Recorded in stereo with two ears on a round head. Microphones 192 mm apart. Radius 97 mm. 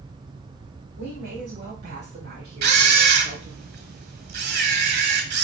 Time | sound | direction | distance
1.0 | a woman speaking | 55° right (ahead or behind) | 3.5 m
2.6 | a camera shutter | 50° right (ahead or behind) | 1.4 m